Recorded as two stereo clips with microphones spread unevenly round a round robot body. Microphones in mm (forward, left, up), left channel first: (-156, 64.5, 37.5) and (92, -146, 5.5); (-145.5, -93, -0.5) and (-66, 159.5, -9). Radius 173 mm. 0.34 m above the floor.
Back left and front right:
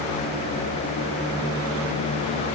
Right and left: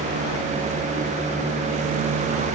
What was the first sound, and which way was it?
Only background noise.